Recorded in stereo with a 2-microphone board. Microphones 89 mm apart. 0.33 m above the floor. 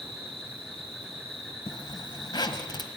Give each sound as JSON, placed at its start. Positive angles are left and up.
{"t": 0.0, "sound": "an insect", "side_deg": 0, "distance_m": 8.5}
{"t": 1.7, "sound": "a zipper", "side_deg": 55, "distance_m": 1.5}